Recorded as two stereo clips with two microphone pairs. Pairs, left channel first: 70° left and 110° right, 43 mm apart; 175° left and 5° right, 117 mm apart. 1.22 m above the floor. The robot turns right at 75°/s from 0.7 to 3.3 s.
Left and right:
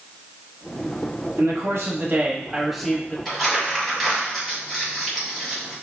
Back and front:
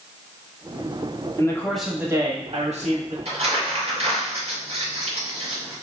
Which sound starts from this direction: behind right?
A man speaking, at 1.4 s.